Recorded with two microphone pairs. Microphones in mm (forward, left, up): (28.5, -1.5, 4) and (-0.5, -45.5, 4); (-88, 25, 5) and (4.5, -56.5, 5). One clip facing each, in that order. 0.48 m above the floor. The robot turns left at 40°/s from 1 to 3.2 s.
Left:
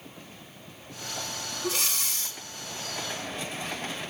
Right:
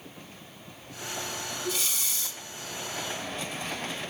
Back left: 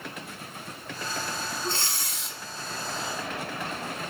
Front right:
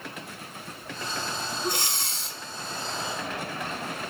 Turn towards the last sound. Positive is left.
turn(degrees=-25)